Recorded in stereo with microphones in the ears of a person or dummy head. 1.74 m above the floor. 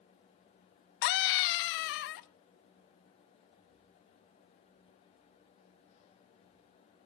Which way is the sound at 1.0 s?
55° left (ahead or behind).